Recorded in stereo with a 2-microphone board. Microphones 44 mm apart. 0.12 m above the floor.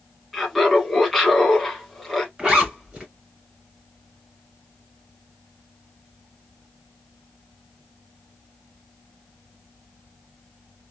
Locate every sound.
0.3 s laughter: centre (ahead or behind), 1.8 m
2.4 s a zipper: 20° right (ahead or behind), 1.7 m